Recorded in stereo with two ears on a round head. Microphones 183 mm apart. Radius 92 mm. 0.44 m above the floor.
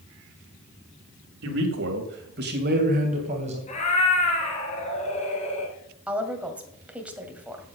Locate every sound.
1.4 s a man speaking: 65° right (ahead or behind), 2.5 m; by 3.6 s 30° right (ahead or behind), 3 m
3.7 s a cat meowing: 35° left (ahead or behind), 3 m
6.1 s a woman speaking: 5° right (ahead or behind), 2 m